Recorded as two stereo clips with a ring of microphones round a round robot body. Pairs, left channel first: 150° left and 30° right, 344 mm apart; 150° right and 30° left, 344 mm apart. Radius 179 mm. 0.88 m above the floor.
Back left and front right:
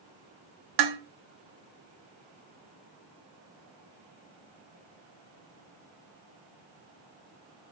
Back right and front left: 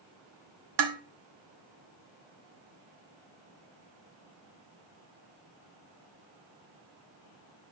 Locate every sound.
0.8 s dishes clattering: 5° right, 1.4 m